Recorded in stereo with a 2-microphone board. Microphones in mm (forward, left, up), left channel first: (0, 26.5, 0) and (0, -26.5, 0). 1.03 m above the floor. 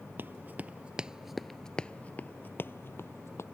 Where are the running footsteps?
40° right (ahead or behind); by 3.5 s 60° left (ahead or behind).